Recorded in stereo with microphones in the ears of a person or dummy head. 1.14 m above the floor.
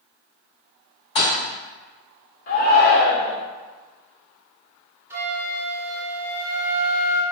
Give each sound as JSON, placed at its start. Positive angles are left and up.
{"t": 1.1, "sound": "a thud", "side_deg": 30, "distance_m": 1.1}
{"t": 2.5, "sound": "a shout", "side_deg": 50, "distance_m": 1.1}
{"t": 5.1, "sound": "a flute", "side_deg": -10, "distance_m": 0.7}